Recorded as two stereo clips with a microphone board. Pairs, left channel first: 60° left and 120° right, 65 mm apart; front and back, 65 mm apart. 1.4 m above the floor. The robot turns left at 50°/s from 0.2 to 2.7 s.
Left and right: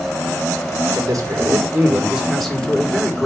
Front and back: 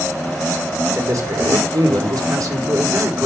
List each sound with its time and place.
0.9 s a man speaking: 140° right, 3 m; by 3.3 s 130° left, 3 m